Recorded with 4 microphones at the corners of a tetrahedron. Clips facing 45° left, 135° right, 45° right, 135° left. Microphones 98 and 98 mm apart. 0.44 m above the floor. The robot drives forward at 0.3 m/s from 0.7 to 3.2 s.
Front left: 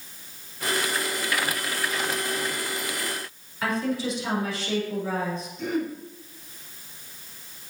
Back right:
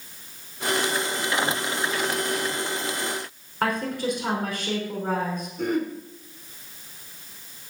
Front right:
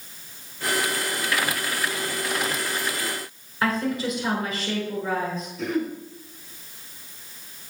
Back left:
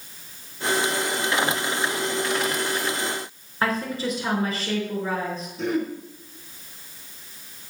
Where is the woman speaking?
170° right, 5 m.